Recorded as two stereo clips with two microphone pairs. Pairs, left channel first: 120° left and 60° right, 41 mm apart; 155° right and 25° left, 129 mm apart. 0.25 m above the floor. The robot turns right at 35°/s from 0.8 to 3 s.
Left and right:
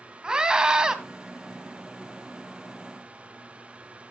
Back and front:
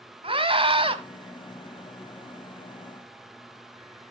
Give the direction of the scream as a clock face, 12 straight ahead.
12 o'clock.